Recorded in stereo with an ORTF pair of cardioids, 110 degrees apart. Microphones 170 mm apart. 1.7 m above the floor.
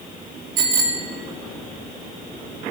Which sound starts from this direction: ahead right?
A bicycle bell, at 0.6 s.